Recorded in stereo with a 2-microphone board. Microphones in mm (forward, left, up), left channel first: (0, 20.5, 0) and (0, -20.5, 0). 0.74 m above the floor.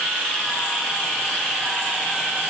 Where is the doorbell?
I don't hear a doorbell.